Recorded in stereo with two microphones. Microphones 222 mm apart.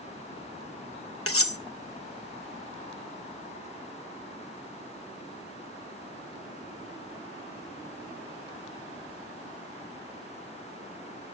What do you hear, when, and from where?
1.3 s cutlery clinking: 85° left, 1.0 m